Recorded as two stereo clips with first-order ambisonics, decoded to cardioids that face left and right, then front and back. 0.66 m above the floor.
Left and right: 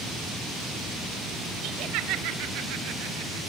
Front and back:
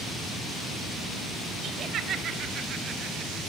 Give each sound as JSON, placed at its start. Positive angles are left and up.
{"t": 1.6, "sound": "laughter", "azimuth_deg": -120, "distance_m": 3.0}